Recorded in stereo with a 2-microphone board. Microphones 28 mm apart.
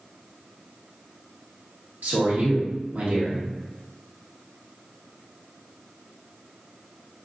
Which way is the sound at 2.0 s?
60° right (ahead or behind).